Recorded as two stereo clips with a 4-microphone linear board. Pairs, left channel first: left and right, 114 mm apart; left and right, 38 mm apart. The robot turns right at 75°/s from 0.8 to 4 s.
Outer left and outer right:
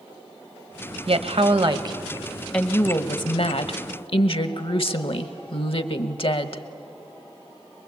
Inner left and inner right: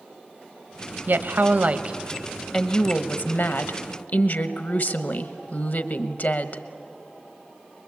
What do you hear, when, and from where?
1.1 s a woman speaking: 105° right, 1.0 m; by 6.6 s 115° left, 1.0 m